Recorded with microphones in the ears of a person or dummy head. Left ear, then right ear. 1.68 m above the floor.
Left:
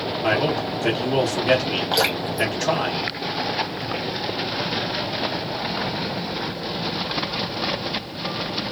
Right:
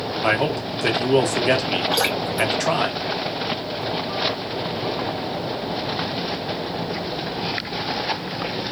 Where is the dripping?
5° left (ahead or behind), 0.8 m.